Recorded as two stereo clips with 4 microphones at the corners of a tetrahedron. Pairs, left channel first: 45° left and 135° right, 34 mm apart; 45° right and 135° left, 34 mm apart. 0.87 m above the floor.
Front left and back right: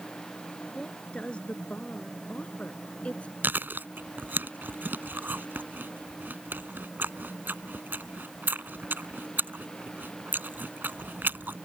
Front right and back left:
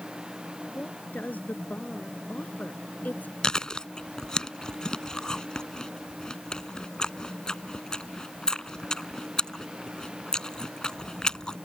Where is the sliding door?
I don't hear a sliding door.